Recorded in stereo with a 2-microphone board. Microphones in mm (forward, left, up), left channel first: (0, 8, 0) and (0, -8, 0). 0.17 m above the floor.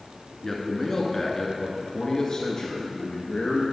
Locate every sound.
0.4 s a man speaking: 15° left (ahead or behind), 1.9 m; by 3.6 s 55° left (ahead or behind), 2.5 m